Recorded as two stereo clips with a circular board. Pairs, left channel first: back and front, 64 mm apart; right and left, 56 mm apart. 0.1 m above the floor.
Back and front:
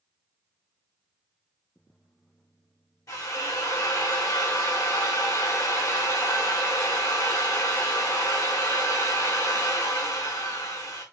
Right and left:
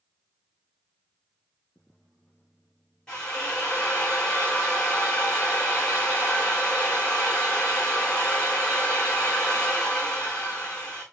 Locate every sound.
3.1 s a drill: 165° right, 4.5 m